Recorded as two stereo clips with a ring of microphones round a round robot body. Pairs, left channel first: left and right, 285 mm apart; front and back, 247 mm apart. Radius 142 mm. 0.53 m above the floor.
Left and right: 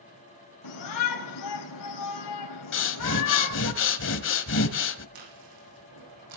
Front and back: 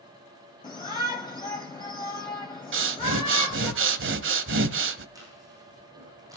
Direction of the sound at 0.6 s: 70° left.